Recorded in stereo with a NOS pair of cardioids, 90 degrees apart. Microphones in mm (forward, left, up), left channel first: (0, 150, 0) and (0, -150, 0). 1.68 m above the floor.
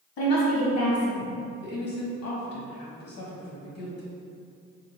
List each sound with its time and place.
0.2 s a woman speaking: 60° left, 1.5 m
1.6 s a woman speaking: 55° left, 1.3 m